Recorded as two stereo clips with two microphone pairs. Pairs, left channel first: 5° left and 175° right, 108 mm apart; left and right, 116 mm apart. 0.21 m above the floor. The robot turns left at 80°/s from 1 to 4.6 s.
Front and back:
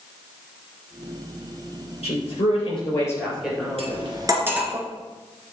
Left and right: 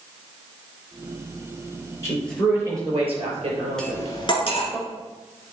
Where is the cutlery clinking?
175° left, 1.7 m; by 4.7 s 110° left, 1.7 m.